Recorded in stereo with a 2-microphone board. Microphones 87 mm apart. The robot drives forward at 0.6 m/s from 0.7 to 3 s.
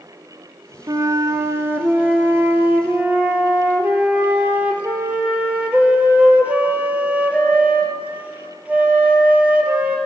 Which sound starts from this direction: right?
A flute, at 0.9 s.